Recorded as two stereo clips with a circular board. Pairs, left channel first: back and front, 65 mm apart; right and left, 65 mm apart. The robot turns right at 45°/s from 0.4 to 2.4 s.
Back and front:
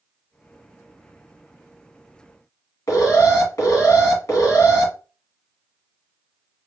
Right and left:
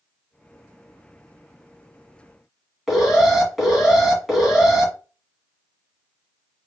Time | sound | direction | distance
2.9 | an alarm | 175° left | 2.5 m